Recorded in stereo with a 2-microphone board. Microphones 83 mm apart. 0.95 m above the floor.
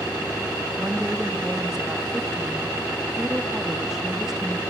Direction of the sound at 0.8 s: 5° right (ahead or behind).